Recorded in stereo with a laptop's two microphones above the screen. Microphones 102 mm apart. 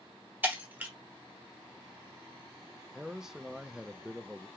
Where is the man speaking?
5° right (ahead or behind), 0.5 m.